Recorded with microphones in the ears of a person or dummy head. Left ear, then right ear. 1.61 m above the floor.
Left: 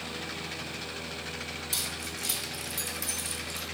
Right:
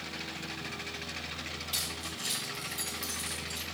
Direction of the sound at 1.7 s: 50° left (ahead or behind).